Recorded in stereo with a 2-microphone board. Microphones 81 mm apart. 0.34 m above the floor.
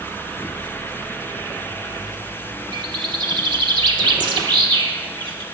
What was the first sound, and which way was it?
A bird, 75° right (ahead or behind).